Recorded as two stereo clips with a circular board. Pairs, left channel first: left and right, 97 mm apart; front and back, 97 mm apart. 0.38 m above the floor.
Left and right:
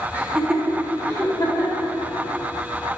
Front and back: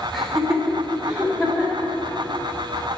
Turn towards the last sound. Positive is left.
turn(degrees=105)